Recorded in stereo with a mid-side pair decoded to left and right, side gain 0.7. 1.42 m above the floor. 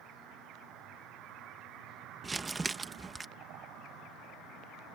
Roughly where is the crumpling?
Ahead.